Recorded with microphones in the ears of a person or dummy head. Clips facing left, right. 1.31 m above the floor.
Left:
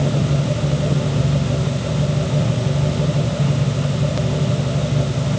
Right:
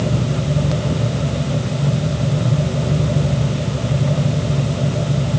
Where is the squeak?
I don't hear a squeak.